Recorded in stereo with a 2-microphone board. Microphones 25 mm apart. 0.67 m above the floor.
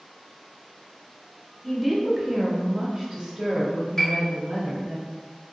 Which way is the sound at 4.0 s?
15° left (ahead or behind).